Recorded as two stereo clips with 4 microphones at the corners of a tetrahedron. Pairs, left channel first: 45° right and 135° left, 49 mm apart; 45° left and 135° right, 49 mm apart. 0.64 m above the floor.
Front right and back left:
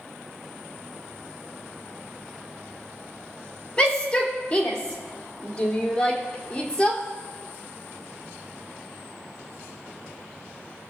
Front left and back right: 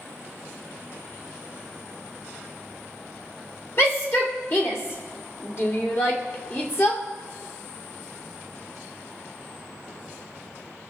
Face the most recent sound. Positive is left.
turn(degrees=25)